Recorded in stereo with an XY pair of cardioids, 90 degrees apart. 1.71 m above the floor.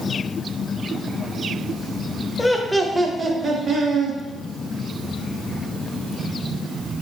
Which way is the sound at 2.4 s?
20° left.